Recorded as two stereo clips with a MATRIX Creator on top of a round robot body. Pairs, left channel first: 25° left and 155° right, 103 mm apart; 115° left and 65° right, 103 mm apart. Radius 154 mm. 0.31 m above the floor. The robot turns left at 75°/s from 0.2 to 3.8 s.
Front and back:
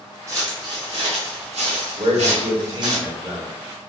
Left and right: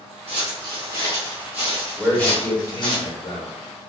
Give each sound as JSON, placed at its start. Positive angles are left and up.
{"t": 0.3, "sound": "footsteps", "azimuth_deg": -95, "distance_m": 0.9}
{"t": 2.0, "sound": "a man speaking", "azimuth_deg": -150, "distance_m": 1.7}